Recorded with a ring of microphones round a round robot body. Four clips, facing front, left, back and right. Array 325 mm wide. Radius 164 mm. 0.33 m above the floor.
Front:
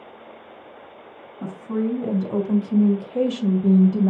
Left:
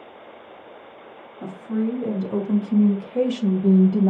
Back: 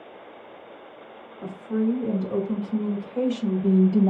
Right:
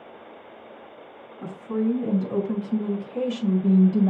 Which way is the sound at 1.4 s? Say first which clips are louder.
Even, even; 10° left.